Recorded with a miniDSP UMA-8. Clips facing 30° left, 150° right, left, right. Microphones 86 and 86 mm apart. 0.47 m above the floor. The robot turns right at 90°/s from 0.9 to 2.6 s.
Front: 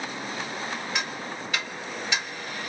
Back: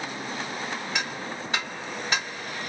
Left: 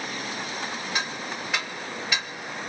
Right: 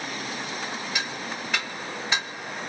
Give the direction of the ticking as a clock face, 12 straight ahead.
8 o'clock.